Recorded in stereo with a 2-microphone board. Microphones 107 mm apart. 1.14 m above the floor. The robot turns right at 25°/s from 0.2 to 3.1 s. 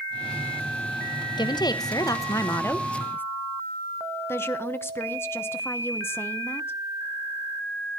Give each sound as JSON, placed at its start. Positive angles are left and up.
{"t": 1.4, "sound": "a woman speaking", "azimuth_deg": 115, "distance_m": 0.8}
{"t": 4.3, "sound": "a woman speaking", "side_deg": 25, "distance_m": 0.9}